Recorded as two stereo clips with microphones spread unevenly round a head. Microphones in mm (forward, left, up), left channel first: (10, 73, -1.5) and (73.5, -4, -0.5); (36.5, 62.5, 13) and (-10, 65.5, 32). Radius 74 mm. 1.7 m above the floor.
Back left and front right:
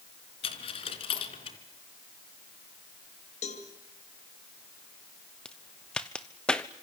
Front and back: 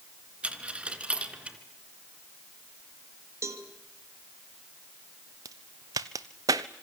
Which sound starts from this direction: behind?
A cowbell, at 3.4 s.